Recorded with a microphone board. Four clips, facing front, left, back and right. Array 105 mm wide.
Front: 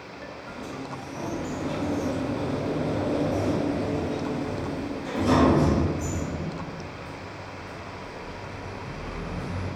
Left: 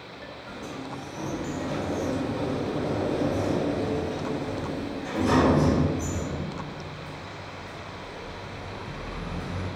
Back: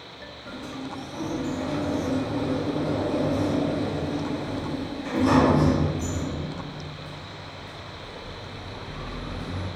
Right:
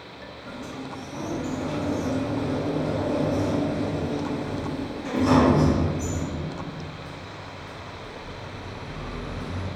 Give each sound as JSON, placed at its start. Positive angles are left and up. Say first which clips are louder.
{"t": 0.5, "sound": "a sliding door", "louder": "right 1 dB, back 2 dB", "azimuth_deg": -120, "distance_m": 1.2}